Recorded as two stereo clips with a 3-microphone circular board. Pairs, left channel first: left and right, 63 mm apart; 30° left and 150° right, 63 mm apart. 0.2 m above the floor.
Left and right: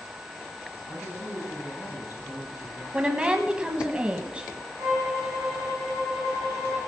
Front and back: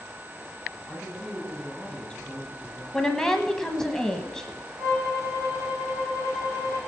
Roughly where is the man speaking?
Left.